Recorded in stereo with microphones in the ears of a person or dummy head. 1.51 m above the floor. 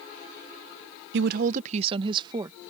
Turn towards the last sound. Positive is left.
turn(degrees=-15)  # may be behind; listen again after turning